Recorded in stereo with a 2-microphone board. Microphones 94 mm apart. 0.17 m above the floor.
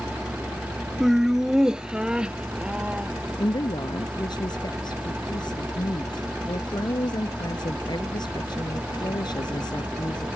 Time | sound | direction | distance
1.0 | laughter | 5° right (ahead or behind) | ?
3.4 | a woman speaking | 55° left (ahead or behind) | ?